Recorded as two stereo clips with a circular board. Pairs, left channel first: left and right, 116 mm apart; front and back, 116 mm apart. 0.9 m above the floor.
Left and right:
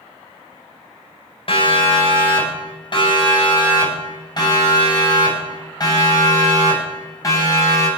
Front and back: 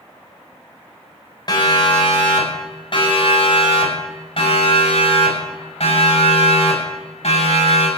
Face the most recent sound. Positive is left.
turn(degrees=30)